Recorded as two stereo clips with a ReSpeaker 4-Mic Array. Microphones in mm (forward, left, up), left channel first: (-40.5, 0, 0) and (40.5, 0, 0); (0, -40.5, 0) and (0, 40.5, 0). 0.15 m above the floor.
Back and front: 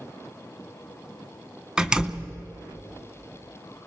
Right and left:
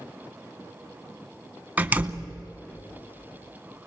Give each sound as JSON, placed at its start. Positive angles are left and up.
{"t": 1.8, "sound": "a door slam", "azimuth_deg": 65, "distance_m": 1.0}